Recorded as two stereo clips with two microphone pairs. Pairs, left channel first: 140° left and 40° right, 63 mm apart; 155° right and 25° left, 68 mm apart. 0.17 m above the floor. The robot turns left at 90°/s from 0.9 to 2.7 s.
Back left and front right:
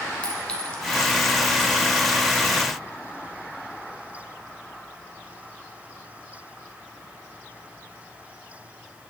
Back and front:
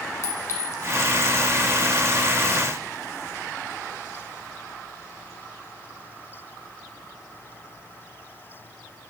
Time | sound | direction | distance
0.2 | a clink | 155° right | 1.0 m